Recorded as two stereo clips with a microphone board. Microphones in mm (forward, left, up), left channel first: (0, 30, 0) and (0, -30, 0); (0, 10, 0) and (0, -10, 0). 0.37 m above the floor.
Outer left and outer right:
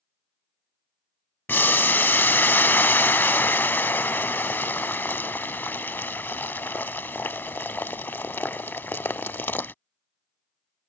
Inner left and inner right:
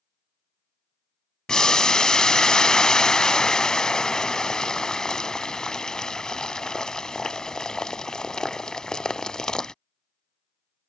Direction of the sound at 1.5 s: 35° left (ahead or behind).